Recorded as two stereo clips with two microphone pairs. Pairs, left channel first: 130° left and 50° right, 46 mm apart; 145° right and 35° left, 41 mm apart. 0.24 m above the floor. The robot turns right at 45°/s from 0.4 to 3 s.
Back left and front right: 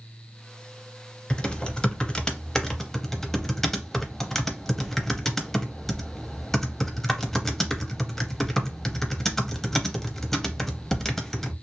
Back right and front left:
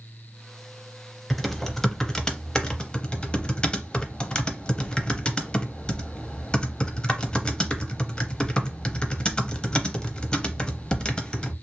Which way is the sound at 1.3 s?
120° left.